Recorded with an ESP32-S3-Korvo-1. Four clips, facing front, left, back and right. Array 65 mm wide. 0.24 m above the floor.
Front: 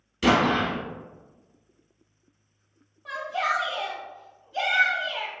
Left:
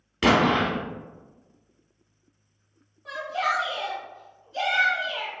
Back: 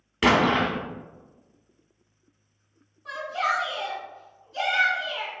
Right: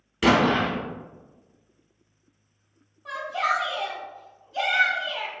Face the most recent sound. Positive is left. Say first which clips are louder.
# right 1 dB, back 1 dB
turn(degrees=-10)